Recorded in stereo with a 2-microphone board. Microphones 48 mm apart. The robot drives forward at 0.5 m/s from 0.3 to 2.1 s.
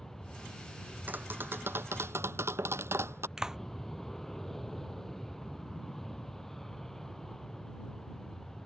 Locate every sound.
0.0 s an aircraft: 5° left (ahead or behind)
1.1 s tapping: 40° right (ahead or behind); by 3.3 s 70° right (ahead or behind)
3.4 s a clap: 10° right (ahead or behind)